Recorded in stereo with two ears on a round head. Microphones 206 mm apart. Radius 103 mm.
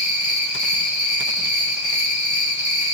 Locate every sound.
0.0 s an insect: 75° left (ahead or behind), 2.5 m